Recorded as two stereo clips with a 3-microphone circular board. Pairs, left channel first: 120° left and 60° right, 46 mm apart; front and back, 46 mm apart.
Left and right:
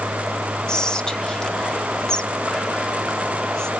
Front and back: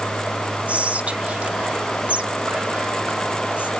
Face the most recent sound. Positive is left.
turn(degrees=175)